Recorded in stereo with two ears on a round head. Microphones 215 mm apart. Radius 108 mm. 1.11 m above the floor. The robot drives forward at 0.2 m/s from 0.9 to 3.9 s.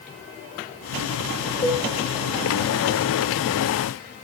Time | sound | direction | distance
1.6 | a cowbell | 30° left (ahead or behind) | 2 m